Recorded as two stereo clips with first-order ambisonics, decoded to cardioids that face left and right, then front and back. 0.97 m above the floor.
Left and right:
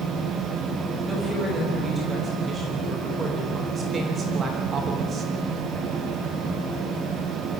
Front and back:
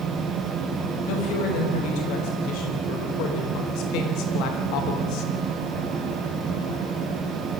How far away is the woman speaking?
About 5.5 m.